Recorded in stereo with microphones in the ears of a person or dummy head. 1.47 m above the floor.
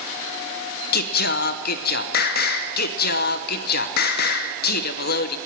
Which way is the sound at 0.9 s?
65° left (ahead or behind).